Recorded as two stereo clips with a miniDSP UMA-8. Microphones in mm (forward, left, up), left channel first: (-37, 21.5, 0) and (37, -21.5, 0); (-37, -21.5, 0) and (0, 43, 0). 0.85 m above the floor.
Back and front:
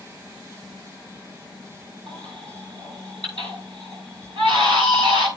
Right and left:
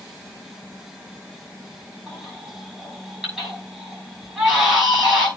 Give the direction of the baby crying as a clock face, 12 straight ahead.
1 o'clock.